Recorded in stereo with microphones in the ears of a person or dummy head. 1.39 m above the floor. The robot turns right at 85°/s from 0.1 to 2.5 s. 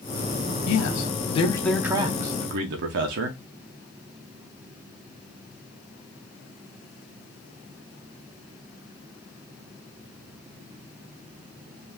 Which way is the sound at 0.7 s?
85° left.